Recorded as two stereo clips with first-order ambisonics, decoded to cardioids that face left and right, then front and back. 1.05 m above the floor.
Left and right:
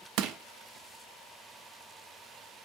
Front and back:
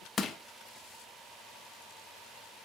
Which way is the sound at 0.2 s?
65° right.